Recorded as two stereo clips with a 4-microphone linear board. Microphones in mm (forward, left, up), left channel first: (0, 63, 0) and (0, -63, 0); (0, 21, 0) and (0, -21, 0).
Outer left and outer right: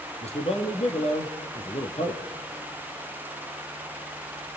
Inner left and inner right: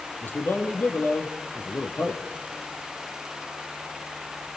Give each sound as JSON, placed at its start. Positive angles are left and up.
{"t": 0.2, "sound": "a man speaking", "side_deg": 60, "distance_m": 4.0}